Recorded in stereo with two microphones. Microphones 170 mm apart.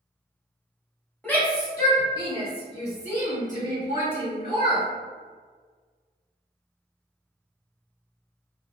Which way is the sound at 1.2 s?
10° left (ahead or behind).